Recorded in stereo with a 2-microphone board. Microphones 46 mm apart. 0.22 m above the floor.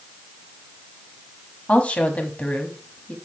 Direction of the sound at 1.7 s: 30° left (ahead or behind).